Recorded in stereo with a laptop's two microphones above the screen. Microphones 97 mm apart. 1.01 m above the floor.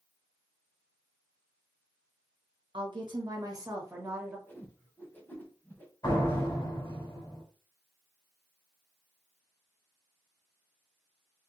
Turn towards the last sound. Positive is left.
turn(degrees=50)  # may be behind; listen again after turning